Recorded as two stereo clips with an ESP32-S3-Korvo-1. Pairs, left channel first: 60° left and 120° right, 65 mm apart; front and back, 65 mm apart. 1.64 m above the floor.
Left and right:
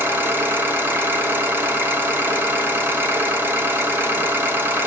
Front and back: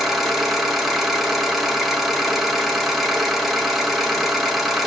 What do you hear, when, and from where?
0.0 s an engine running: 95° right, 1.0 m